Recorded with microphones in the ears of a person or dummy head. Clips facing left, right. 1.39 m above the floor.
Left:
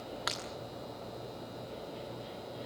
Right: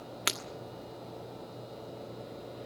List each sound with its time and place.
0.3 s breaking glass: 40° right (ahead or behind), 1.2 m